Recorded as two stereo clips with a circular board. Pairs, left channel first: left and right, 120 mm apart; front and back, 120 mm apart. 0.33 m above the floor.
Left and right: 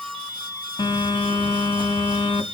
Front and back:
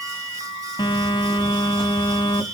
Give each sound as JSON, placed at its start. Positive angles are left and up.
{"t": 0.8, "sound": "a phone buzzing", "azimuth_deg": 50, "distance_m": 1.8}